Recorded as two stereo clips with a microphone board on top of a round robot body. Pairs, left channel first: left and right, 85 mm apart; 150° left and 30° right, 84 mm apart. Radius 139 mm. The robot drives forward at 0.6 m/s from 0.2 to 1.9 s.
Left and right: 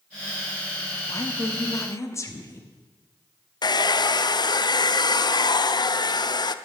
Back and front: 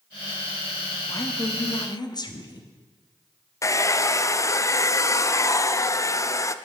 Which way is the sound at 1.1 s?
115° left.